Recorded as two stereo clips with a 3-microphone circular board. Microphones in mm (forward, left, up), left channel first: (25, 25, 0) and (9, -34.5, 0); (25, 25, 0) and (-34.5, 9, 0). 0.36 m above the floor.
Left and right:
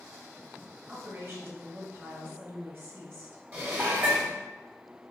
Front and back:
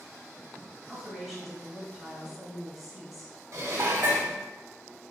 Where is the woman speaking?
75° right, 1.3 m.